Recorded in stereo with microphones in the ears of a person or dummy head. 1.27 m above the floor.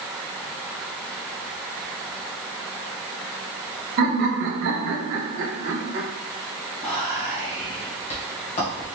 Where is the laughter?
45° right (ahead or behind), 1.0 m.